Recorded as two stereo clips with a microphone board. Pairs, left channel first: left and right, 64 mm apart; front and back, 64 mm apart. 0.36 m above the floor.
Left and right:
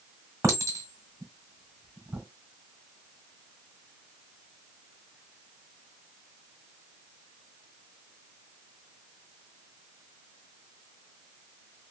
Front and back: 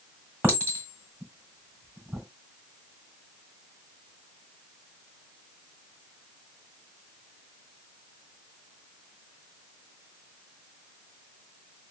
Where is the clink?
120° right, 1.6 m.